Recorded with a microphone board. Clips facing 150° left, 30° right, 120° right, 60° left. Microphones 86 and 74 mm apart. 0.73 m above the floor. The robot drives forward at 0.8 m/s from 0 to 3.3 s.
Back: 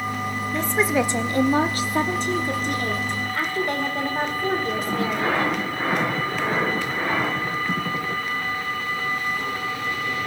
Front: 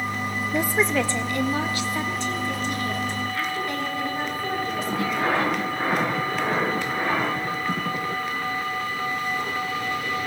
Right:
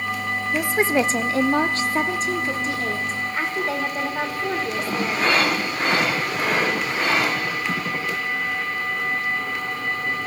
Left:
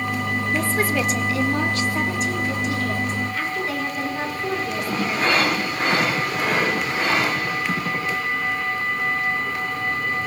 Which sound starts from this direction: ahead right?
A woman speaking, at 0.5 s.